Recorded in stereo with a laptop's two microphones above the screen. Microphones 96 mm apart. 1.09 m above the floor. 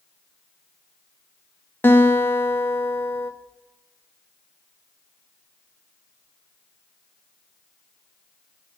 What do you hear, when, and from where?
1.8 s a guitar: 20° left (ahead or behind), 1.0 m